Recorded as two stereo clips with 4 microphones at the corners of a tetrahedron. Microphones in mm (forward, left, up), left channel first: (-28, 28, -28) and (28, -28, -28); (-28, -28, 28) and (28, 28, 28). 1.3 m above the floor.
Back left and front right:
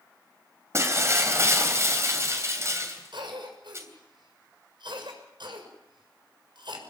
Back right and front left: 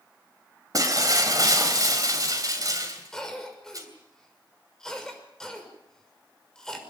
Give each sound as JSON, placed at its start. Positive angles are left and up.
{"t": 0.7, "sound": "breaking glass", "azimuth_deg": 5, "distance_m": 3.0}
{"t": 3.1, "sound": "a cough", "azimuth_deg": -50, "distance_m": 6.0}